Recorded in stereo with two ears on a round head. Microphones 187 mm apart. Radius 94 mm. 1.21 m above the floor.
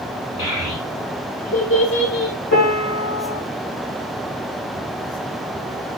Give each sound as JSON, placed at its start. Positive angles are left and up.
{"t": 0.4, "sound": "a child speaking", "side_deg": 75, "distance_m": 3.0}
{"t": 2.5, "sound": "a piano", "side_deg": 60, "distance_m": 1.7}